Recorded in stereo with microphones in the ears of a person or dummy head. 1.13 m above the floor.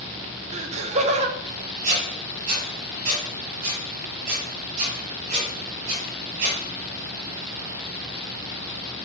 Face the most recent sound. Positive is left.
turn(degrees=-40)  # may be behind; listen again after turning